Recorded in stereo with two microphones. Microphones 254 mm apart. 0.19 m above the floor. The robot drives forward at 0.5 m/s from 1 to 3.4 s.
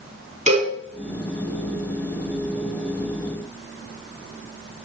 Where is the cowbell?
30° right (ahead or behind), 5.5 m.